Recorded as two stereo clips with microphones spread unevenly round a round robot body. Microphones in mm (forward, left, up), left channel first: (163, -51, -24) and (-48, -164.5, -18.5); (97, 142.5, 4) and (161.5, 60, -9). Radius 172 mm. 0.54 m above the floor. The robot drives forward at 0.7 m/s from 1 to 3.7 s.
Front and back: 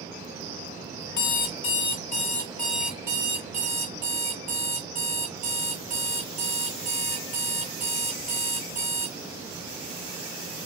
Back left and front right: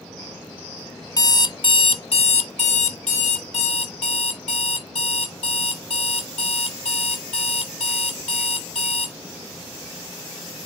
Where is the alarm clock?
65° left, 1.2 m; by 9.2 s 140° left, 1.7 m.